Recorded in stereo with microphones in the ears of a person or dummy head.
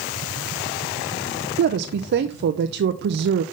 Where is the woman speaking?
60° right (ahead or behind), 0.6 m.